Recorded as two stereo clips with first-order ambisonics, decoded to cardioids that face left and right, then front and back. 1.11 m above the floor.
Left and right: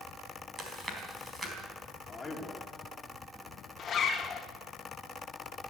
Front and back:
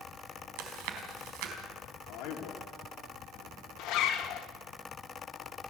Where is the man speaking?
15° left, 2.5 m.